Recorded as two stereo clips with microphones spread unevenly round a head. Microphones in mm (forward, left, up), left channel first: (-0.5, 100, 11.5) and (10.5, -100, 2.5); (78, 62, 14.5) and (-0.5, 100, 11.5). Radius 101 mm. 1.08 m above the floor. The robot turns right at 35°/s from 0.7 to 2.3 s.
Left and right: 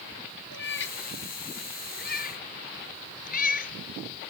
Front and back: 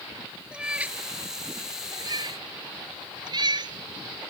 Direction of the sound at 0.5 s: 75° left.